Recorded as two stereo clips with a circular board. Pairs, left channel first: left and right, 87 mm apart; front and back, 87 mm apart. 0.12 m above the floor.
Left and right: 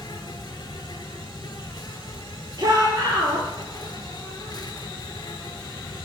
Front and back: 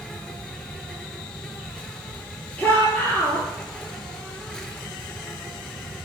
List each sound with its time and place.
0.0 s an insect: 80° left, 1.1 m
2.6 s a shout: 65° right, 2 m